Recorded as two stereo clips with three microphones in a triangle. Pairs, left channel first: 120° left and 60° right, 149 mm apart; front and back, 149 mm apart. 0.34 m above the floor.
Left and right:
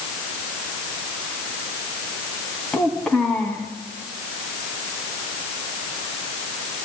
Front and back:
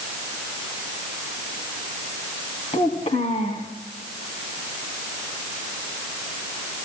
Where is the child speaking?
35° left, 2.5 m.